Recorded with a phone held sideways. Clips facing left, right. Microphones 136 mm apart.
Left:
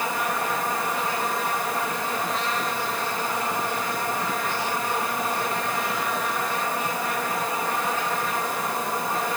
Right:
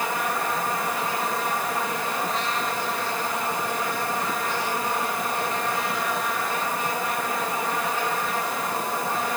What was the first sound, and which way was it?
Only background noise.